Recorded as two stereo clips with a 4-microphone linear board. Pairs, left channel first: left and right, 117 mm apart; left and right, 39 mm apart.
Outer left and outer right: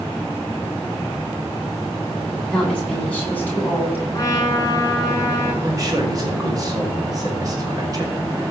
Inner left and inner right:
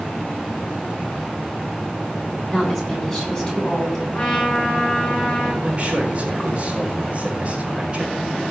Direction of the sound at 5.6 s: 30° right (ahead or behind).